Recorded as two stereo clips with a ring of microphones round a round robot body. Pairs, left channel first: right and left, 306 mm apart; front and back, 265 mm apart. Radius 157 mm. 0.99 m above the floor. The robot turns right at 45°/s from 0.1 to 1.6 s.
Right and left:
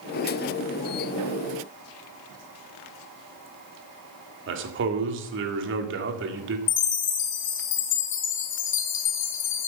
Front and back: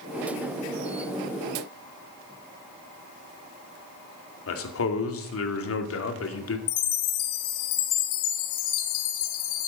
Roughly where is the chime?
Ahead right.